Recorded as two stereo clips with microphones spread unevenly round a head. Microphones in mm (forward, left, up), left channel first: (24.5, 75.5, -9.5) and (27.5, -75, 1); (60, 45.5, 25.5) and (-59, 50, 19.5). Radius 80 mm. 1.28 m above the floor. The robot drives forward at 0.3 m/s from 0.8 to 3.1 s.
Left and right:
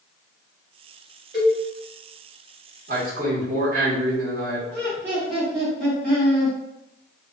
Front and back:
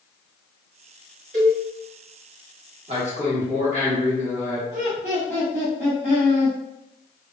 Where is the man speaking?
135° right, 1.1 m.